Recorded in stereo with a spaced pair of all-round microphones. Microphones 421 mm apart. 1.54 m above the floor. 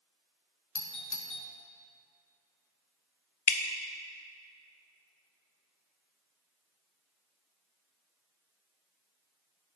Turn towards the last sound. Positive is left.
turn(degrees=80)